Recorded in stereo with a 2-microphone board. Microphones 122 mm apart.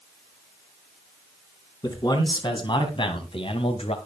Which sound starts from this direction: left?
A man speaking, at 1.8 s.